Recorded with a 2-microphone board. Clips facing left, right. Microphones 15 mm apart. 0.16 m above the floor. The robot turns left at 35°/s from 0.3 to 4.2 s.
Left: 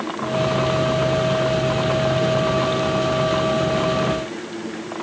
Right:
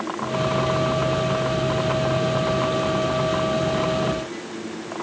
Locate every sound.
Only background noise.